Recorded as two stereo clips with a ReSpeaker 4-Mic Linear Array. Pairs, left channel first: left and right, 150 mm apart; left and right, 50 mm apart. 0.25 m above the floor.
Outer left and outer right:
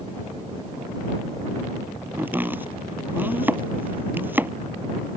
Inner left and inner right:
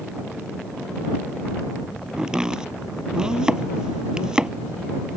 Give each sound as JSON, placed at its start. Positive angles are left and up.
{"t": 2.2, "sound": "chopping", "side_deg": -15}